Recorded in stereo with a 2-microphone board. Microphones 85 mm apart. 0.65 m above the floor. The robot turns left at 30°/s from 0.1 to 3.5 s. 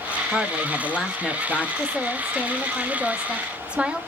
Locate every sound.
0.3 s a woman speaking: 5° right (ahead or behind), 0.7 m; by 1.7 s 10° left (ahead or behind), 0.7 m
1.8 s a woman speaking: 15° left (ahead or behind), 0.8 m; by 4.0 s 10° right (ahead or behind), 0.8 m